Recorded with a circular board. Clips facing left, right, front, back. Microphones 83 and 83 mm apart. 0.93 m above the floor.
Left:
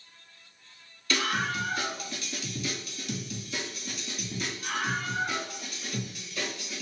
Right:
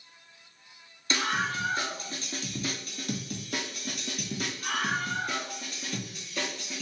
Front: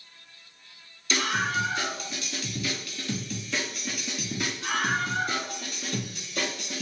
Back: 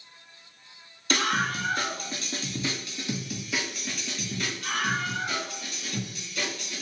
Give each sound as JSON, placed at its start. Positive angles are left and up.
{"t": 1.1, "sound": "a scream", "azimuth_deg": -150, "distance_m": 1.8}